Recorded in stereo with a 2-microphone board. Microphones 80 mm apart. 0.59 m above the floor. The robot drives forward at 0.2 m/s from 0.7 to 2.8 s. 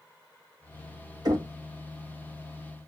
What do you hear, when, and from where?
1.2 s knocking: 55° right (ahead or behind), 1.5 m